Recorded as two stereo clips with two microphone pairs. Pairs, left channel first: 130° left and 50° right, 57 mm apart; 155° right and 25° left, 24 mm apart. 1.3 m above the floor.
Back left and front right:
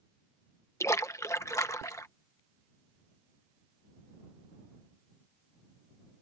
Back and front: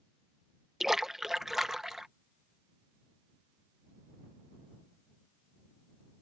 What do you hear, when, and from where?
0.8 s a splash: 105° left